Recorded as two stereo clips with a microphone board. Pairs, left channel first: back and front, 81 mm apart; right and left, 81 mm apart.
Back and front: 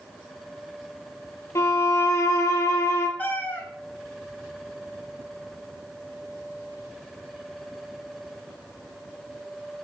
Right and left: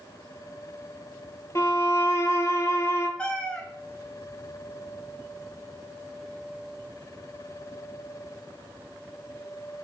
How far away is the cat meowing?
About 0.6 m.